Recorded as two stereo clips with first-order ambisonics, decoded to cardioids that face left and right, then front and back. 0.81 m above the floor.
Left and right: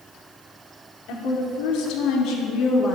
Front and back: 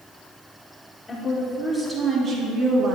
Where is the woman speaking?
85° left, 1.8 m; by 3.0 s 150° left, 1.3 m.